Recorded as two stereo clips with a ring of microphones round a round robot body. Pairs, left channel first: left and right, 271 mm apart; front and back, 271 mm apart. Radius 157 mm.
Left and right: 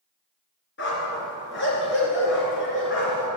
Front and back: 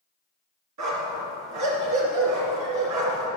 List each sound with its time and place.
0.8 s a dog barking: 145° left, 2.5 m